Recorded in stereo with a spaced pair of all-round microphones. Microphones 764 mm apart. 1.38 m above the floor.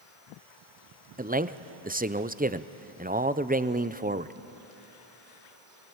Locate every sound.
1.2 s a man speaking: 15° right (ahead or behind), 0.5 m